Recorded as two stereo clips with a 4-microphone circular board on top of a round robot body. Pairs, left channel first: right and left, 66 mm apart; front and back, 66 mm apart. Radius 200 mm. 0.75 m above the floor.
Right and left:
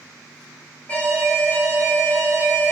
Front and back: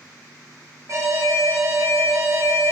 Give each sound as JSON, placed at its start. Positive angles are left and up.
{"t": 0.9, "sound": "an alarm", "azimuth_deg": -150, "distance_m": 1.3}